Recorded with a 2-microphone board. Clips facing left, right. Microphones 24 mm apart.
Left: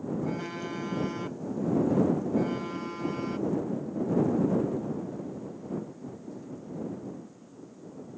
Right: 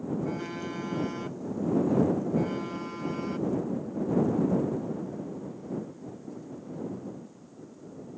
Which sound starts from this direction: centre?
A phone buzzing, at 0.2 s.